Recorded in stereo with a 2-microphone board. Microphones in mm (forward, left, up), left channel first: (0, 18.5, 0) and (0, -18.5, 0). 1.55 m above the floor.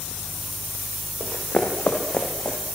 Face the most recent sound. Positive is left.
turn(degrees=30)  # may be behind; listen again after turning